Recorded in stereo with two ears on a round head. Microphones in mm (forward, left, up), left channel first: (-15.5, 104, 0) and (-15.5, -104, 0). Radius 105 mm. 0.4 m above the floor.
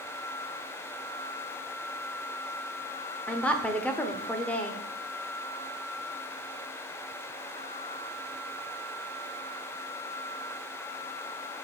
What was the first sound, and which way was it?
A woman speaking, 5° left (ahead or behind).